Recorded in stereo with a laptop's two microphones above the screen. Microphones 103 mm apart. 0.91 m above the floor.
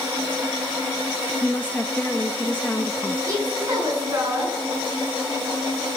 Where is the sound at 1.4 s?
15° left (ahead or behind), 0.9 m.